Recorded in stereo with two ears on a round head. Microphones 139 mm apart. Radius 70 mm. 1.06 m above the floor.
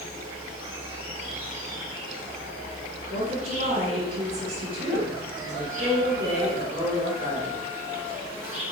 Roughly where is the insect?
Centre.